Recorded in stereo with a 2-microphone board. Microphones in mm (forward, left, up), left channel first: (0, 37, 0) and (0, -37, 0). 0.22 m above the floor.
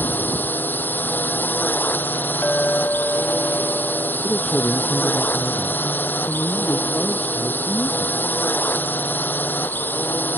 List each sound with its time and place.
0.0 s a drone: 25° left (ahead or behind)
2.4 s a clink: 20° left (ahead or behind)
4.2 s a man speaking: 10° left (ahead or behind)